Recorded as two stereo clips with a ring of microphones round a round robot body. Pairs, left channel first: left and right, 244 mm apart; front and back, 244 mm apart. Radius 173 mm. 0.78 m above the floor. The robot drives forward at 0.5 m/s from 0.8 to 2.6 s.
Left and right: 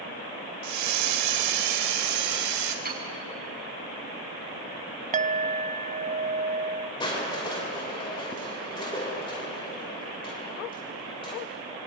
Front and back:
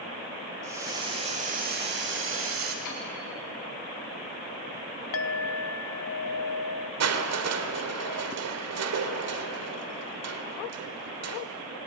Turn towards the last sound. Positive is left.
turn(degrees=165)